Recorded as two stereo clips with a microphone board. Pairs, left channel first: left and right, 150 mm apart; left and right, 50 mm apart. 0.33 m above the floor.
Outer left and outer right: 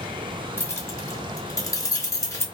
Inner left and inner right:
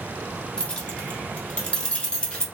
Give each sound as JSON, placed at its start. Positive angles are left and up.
{"t": 0.6, "sound": "keys jangling", "side_deg": 15, "distance_m": 0.9}